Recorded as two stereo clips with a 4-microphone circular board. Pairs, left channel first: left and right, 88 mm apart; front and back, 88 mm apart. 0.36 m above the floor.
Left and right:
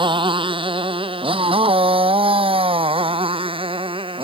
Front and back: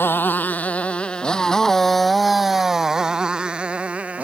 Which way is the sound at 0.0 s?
65° right.